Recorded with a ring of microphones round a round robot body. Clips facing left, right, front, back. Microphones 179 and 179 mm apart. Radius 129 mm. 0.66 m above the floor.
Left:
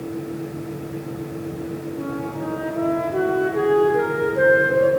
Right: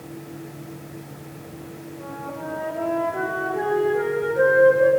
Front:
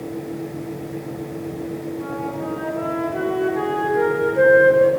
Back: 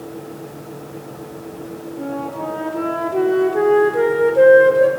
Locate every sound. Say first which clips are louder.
2.0 s a flute: left 4 dB, back 1 dB; 135° left, 6 m